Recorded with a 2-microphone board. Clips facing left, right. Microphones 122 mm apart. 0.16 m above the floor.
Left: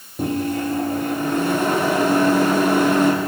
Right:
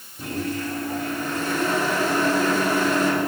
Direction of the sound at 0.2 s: 55° left (ahead or behind).